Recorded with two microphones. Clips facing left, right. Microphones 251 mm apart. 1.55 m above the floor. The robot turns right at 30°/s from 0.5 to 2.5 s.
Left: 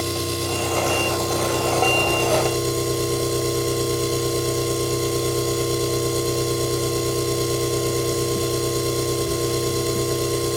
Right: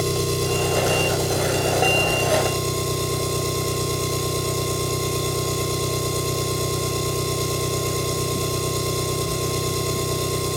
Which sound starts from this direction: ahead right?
An engine running, at 0.0 s.